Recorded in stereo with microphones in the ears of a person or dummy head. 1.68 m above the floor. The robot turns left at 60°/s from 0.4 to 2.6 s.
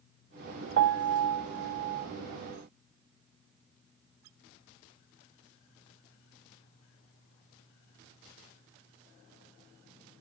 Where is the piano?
65° right, 0.6 m; by 2.1 s 140° right, 0.6 m.